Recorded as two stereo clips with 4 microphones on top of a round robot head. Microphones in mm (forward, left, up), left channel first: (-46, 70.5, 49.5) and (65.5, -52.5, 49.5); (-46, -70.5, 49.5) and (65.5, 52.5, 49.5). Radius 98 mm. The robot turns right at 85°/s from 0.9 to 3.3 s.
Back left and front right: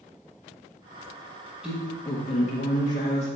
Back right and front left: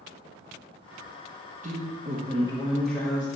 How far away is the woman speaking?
About 1.3 m.